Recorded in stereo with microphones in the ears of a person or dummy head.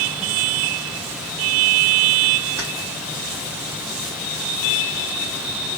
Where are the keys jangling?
20° right (ahead or behind), 3 m.